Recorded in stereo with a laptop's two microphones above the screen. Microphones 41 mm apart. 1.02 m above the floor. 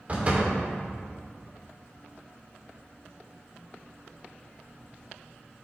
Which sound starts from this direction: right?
A door slam, at 0.1 s.